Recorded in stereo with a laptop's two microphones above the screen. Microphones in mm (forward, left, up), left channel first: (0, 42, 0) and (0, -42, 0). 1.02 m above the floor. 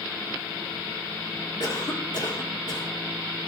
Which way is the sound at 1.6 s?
55° left (ahead or behind).